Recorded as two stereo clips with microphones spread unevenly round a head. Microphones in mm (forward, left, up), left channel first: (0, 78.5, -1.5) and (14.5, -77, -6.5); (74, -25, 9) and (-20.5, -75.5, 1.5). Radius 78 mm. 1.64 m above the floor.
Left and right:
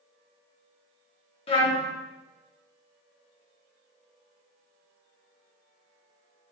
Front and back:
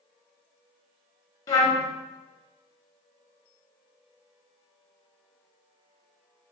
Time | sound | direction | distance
1.5 | a trumpet | 65° left | 0.9 m